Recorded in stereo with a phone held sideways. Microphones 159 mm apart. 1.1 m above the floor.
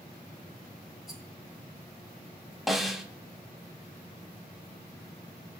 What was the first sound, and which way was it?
A rattle, 5° right (ahead or behind).